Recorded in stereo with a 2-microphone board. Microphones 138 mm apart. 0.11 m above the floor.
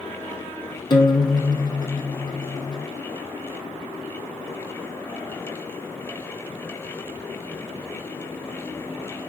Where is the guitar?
35° left (ahead or behind), 3 m.